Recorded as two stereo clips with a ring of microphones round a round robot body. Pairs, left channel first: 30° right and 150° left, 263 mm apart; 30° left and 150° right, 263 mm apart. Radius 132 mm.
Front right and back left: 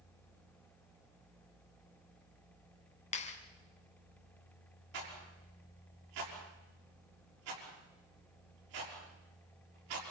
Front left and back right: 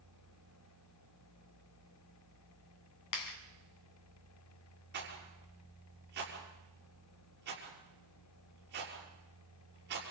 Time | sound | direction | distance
3.1 | a clap | 35° left | 2.5 m
4.9 | a rattle | 155° left | 6.5 m